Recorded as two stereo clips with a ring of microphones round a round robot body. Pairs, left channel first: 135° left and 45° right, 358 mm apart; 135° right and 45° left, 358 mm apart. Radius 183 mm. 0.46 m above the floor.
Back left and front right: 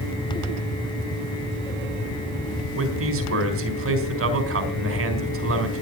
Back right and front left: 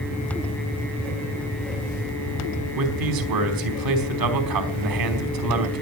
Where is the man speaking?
10° left, 4.5 m.